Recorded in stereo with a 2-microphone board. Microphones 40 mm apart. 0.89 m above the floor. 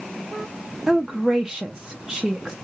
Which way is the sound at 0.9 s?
10° right (ahead or behind).